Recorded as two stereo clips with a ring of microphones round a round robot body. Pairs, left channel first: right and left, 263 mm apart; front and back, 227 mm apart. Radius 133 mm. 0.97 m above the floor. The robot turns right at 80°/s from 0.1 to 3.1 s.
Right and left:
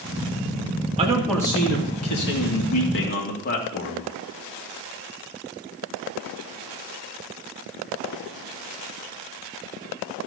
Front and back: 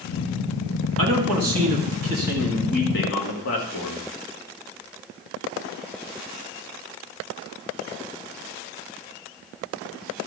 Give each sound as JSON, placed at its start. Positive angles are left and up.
{"t": 1.0, "sound": "a man speaking", "azimuth_deg": 155, "distance_m": 2.0}